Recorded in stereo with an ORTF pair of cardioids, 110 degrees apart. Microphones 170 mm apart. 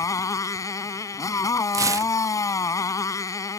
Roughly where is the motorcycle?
Ahead.